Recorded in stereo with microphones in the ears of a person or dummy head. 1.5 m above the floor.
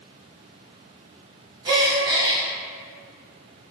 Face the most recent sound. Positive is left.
turn(degrees=-20)  # may be behind; listen again after turning